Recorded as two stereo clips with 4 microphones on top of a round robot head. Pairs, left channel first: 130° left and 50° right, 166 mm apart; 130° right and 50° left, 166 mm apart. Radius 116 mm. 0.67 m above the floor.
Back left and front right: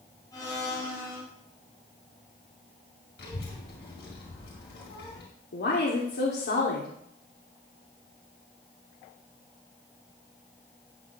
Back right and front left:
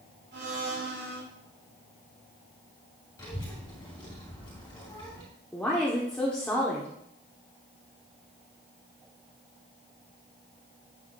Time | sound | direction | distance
0.3 | a blender | 65° left | 6 m
3.2 | a child speaking | 155° left | 2.5 m
5.5 | a woman speaking | 145° left | 1.6 m